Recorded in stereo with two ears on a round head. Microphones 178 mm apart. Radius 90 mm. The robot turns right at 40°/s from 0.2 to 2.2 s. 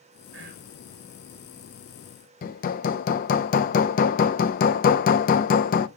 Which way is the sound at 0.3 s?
60° right (ahead or behind).